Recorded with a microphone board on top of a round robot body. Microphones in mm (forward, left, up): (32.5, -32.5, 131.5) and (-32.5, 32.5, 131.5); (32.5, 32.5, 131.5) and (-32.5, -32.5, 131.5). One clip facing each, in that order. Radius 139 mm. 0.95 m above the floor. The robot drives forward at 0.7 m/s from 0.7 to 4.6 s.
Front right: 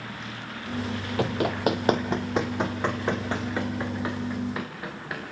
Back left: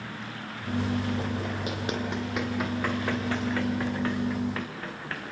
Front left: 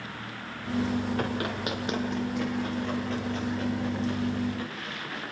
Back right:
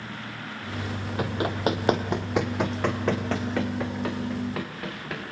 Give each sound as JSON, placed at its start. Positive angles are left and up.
{"t": 1.2, "sound": "running footsteps", "azimuth_deg": -50, "distance_m": 1.4}